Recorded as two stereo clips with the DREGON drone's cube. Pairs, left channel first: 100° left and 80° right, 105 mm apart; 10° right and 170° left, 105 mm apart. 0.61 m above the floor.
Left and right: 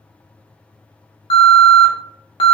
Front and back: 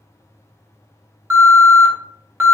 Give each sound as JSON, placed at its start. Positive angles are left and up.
{"t": 1.3, "sound": "an alarm", "azimuth_deg": 100, "distance_m": 0.8}